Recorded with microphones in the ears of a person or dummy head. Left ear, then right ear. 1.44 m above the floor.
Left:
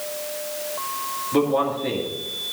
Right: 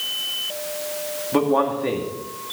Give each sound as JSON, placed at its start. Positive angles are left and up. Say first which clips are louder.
{"t": 1.3, "sound": "a man speaking", "louder": "right 2 dB", "side_deg": -30, "distance_m": 2.5}